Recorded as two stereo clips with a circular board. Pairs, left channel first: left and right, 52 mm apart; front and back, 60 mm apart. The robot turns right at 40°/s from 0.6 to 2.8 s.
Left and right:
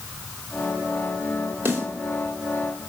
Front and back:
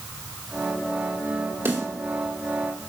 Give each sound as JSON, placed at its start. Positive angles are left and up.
{"t": 1.6, "sound": "a snare drum", "azimuth_deg": -130, "distance_m": 2.5}